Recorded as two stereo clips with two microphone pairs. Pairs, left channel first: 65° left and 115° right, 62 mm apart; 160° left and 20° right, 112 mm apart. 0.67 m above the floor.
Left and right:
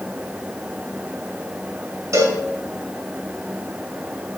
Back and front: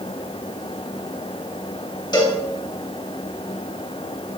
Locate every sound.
2.1 s a cowbell: 150° right, 2.5 m